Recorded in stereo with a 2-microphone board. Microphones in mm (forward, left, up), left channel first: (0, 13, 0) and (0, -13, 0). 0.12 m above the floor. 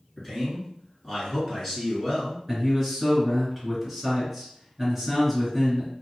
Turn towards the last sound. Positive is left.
turn(degrees=0)  # may be behind; listen again after turning